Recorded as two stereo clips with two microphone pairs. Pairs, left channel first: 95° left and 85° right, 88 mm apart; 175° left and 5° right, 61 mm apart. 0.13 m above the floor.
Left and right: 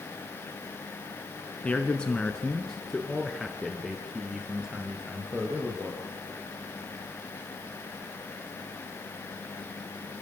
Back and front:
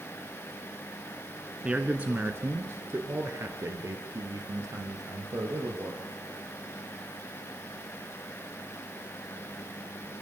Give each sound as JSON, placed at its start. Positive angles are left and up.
{"t": 1.6, "sound": "a man speaking", "azimuth_deg": 45, "distance_m": 1.5}